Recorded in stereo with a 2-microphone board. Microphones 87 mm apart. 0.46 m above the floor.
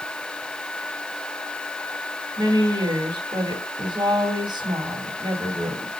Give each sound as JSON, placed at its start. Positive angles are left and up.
{"t": 2.4, "sound": "a woman speaking", "side_deg": -55, "distance_m": 3.0}